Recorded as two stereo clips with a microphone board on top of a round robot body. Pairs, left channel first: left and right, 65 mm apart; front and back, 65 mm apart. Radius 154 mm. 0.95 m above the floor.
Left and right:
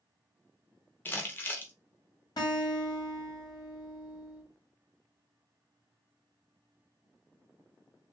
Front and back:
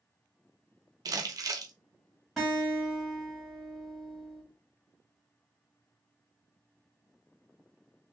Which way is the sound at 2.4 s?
90° left.